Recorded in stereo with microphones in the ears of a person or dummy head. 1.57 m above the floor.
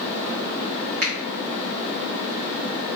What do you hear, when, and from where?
1.0 s a finger snap: 50° right (ahead or behind), 1.2 m